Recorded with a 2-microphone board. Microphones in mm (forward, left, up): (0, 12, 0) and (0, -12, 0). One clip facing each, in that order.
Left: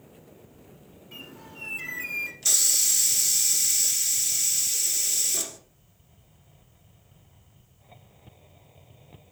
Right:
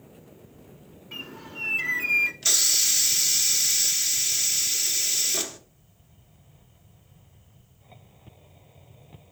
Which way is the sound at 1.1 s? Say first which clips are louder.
Right 6 dB; 25° right (ahead or behind).